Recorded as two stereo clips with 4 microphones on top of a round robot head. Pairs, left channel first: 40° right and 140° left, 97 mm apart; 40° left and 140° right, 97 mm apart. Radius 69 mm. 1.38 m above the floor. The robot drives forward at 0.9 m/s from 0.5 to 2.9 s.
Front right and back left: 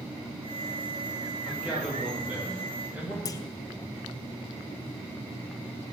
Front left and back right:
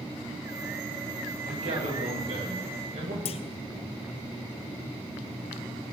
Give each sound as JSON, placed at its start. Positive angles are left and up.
{"t": 1.5, "sound": "a man speaking", "azimuth_deg": -140, "distance_m": 7.0}
{"t": 3.2, "sound": "a clunk", "azimuth_deg": 15, "distance_m": 0.6}